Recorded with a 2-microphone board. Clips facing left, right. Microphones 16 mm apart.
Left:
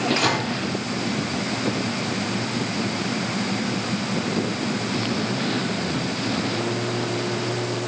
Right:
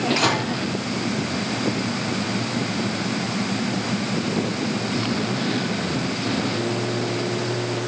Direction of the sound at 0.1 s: 20° right (ahead or behind).